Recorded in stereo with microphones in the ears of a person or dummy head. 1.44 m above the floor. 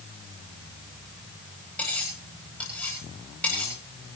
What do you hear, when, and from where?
1.8 s cutlery clinking: 5° left (ahead or behind), 9.5 m